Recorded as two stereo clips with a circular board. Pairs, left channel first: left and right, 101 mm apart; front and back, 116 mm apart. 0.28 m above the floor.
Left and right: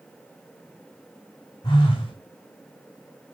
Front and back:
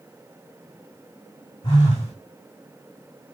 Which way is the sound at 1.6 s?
50° left.